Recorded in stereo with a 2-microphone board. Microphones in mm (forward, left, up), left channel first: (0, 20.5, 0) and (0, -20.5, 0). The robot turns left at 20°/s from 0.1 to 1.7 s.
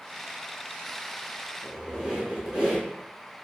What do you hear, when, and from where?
1.6 s a squeak: 20° right (ahead or behind), 1.4 m